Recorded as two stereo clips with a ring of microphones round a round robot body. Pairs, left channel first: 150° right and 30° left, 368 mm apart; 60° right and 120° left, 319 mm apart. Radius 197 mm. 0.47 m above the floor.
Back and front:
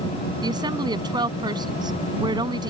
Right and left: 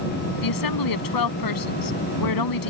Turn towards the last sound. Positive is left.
turn(degrees=-50)